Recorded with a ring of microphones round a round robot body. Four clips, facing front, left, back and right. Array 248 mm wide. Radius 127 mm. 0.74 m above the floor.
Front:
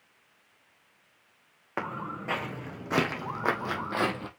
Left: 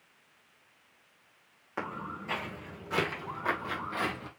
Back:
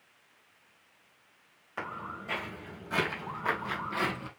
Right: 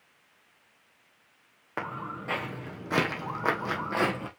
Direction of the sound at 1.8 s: 30° right.